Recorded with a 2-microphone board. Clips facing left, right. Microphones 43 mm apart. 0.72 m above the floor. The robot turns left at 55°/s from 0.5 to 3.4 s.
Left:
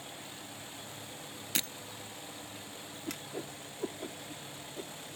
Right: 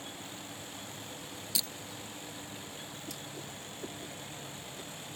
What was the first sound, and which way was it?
Breaking glass, 50° left (ahead or behind).